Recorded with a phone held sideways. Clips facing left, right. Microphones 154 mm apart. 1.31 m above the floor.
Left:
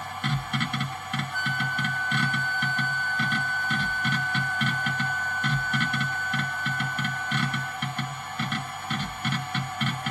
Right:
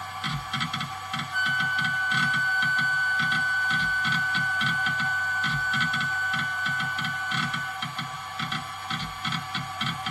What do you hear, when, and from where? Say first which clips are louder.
0.0 s a machine running: left 3 dB; 60° left (ahead or behind), 0.9 m
1.3 s a flute: even; 35° left (ahead or behind), 1.0 m